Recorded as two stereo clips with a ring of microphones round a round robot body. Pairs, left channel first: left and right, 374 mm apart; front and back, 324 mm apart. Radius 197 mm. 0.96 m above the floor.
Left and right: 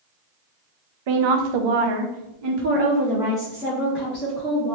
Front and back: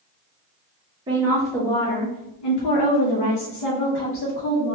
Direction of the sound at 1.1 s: 105° right.